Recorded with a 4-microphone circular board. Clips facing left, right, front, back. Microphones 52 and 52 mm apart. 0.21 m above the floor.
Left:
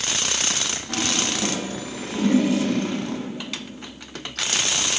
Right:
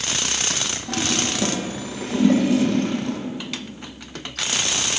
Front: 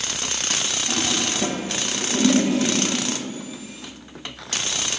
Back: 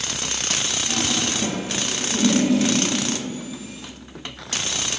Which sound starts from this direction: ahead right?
A toilet flushing, at 0.9 s.